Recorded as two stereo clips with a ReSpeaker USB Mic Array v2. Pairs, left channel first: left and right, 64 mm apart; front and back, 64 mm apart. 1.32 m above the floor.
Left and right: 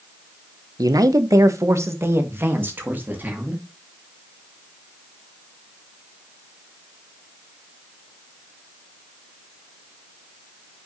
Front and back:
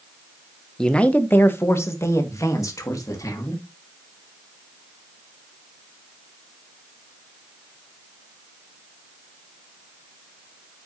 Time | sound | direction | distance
0.8 | a man speaking | 80° right | 1.1 m